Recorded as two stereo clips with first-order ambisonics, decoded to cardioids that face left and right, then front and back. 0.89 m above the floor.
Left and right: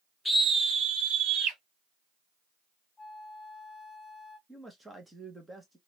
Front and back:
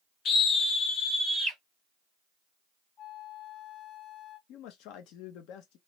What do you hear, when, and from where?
0.2 s a scream: 15° left, 0.5 m; by 1.6 s 75° right, 1.3 m
3.0 s a flute: 10° left, 1.8 m
4.5 s a man speaking: 5° right, 0.6 m